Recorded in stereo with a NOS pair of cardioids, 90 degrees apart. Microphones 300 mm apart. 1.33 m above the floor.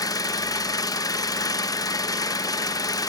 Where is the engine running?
10° left, 1.1 m.